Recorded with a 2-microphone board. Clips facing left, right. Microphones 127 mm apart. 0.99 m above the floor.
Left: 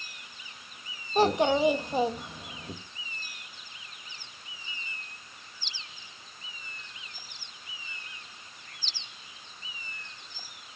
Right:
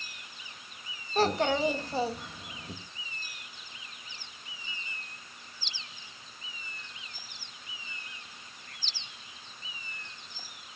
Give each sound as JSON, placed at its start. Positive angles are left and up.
{"t": 1.1, "sound": "a child speaking", "side_deg": 15, "distance_m": 1.0}